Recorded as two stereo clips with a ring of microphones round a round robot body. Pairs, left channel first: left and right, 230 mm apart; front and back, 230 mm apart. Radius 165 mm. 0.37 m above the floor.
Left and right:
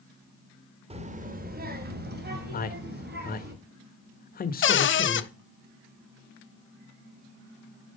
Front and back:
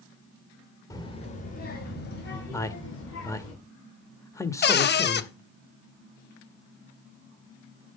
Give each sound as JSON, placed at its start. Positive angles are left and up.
{"t": 0.9, "sound": "a child speaking", "azimuth_deg": -60, "distance_m": 1.0}
{"t": 2.5, "sound": "a man speaking", "azimuth_deg": 70, "distance_m": 1.0}
{"t": 4.6, "sound": "a cupboard door", "azimuth_deg": 50, "distance_m": 0.7}